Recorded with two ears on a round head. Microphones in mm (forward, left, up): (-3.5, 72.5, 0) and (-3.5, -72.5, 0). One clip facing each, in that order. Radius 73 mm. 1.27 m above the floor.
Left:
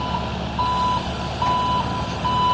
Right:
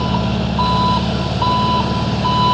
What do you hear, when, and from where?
0.0 s an engine running: 55° right (ahead or behind)